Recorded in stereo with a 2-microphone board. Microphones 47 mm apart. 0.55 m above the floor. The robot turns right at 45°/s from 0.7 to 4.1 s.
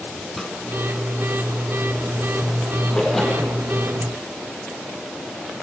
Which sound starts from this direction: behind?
A splash, at 2.9 s.